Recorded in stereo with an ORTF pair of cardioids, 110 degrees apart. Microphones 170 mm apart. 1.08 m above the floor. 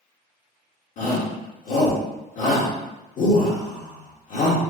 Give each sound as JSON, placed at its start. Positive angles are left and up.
{"t": 1.0, "sound": "a shout", "azimuth_deg": 50, "distance_m": 1.5}